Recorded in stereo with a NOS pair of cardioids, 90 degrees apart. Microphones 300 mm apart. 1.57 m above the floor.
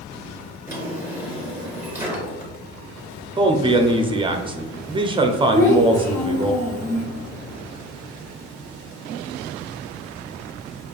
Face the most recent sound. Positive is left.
turn(degrees=10)